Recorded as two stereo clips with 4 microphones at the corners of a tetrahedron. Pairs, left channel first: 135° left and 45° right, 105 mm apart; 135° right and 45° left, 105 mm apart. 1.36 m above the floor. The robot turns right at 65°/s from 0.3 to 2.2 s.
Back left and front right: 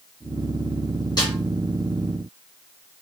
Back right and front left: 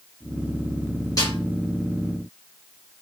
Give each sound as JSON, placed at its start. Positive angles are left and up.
{"t": 1.2, "sound": "a snare drum", "azimuth_deg": 175, "distance_m": 1.7}